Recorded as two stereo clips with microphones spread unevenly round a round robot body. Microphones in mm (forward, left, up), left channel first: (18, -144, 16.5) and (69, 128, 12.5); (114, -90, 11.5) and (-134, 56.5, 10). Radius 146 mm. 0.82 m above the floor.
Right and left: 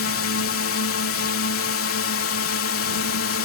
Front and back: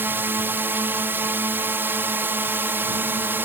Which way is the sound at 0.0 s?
130° right.